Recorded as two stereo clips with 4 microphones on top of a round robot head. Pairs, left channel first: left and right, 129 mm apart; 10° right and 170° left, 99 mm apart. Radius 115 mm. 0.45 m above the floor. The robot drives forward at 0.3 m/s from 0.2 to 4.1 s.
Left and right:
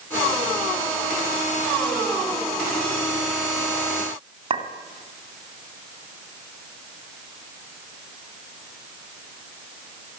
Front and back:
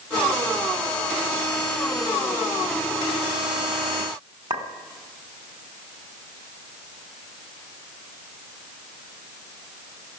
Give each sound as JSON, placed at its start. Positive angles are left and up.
{"t": 4.5, "sound": "a clink", "azimuth_deg": -140, "distance_m": 2.0}